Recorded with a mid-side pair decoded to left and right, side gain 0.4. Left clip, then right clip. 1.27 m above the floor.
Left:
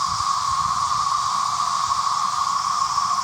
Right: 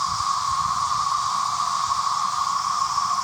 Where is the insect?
10° left.